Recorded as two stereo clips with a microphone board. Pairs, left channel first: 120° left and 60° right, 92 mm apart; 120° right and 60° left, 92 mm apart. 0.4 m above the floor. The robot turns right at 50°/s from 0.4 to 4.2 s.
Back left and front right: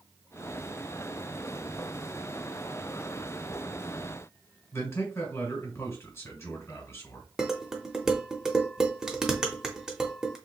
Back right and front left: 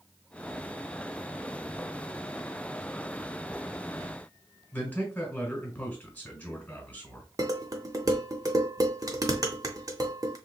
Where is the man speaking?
175° left, 1.8 m.